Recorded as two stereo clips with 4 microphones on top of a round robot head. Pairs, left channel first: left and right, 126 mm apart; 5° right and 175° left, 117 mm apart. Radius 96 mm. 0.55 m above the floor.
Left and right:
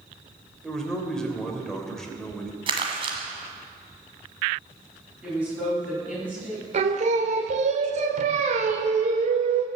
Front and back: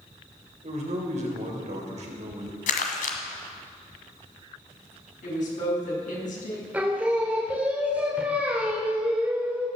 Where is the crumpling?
30° right, 1.5 m.